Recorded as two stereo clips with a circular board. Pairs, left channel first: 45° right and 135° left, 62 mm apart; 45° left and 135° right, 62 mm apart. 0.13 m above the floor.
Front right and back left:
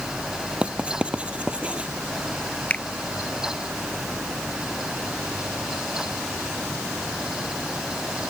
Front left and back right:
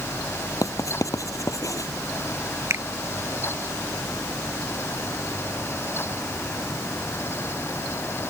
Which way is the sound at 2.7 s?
110° right.